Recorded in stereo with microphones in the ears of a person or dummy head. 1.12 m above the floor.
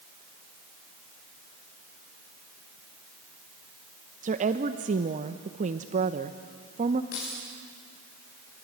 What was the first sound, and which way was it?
A woman speaking, 40° right (ahead or behind).